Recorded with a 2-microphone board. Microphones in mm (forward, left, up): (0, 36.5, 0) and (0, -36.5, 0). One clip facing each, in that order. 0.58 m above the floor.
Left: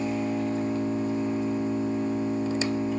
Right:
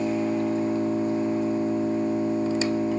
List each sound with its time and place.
0.0 s an engine running: 70° right (ahead or behind), 3.5 m